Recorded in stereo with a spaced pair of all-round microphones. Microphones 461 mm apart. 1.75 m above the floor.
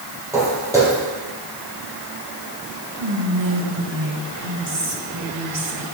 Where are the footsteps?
5° right (ahead or behind), 3 m.